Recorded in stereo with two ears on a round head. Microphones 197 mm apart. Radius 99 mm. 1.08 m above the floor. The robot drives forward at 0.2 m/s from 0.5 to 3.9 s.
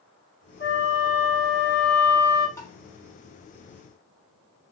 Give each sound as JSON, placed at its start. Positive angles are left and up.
{"t": 0.6, "sound": "a flute", "side_deg": 40, "distance_m": 1.6}
{"t": 2.6, "sound": "tapping", "side_deg": 15, "distance_m": 1.1}